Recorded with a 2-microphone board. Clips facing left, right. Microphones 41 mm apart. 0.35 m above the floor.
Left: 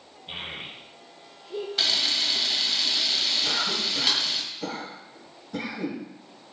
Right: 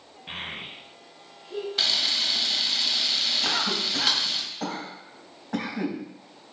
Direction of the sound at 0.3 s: 75° right (ahead or behind).